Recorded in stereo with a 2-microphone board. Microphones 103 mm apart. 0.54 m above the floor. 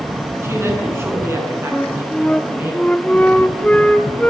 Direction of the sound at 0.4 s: 25° right (ahead or behind).